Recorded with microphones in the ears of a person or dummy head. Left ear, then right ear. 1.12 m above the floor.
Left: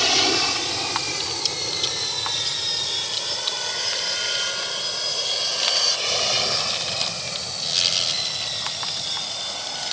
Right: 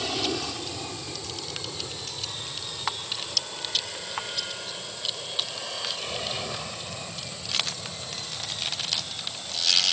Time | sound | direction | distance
0.0 | an aircraft | 60° left (ahead or behind) | ?